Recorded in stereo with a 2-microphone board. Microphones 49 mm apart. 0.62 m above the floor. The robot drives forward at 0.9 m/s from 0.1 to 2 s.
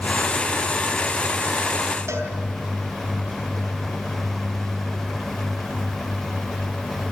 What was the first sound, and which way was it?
A cowbell, 85° right.